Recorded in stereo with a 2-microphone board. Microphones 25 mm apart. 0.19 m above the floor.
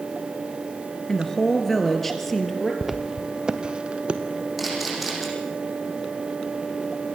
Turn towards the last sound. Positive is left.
turn(degrees=-5)  # may be behind; listen again after turning